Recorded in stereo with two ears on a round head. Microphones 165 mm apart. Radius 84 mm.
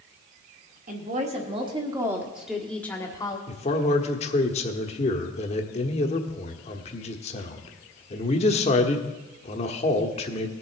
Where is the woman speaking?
45° right (ahead or behind), 1.6 m; by 3.4 s 20° left (ahead or behind), 1.5 m.